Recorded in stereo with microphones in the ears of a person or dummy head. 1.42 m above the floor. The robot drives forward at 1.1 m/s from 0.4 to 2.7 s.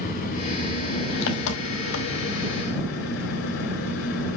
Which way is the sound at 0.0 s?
50° left (ahead or behind).